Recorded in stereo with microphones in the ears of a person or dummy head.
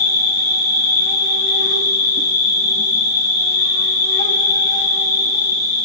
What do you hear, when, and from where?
0.0 s an insect: 45° left (ahead or behind), 2 m